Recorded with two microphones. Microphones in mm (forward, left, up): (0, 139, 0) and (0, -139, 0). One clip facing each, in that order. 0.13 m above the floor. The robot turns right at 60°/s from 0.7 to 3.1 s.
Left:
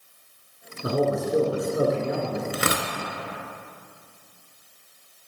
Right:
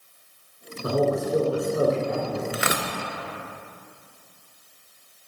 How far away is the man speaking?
About 1.3 m.